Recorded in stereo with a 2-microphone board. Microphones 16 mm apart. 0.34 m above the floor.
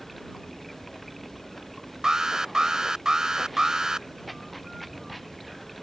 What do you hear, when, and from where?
0.0 s running water: 5° left (ahead or behind)
2.0 s an alarm: 45° right (ahead or behind)